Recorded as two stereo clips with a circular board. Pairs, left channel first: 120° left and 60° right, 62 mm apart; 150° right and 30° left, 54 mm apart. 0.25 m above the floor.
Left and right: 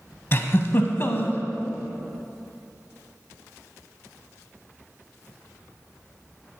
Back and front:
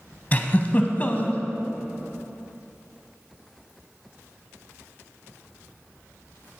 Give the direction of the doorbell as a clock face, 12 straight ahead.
No doorbell in this recording.